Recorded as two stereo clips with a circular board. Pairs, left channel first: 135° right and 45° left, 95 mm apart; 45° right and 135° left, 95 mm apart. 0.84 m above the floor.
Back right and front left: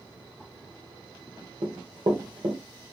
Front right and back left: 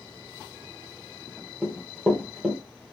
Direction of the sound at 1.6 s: 45° left.